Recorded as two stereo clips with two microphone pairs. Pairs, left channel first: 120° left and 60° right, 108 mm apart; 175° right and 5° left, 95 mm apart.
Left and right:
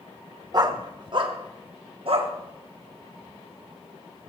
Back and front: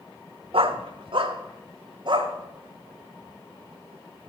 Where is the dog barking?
10° right, 0.9 m; by 2.3 s 30° right, 1.6 m.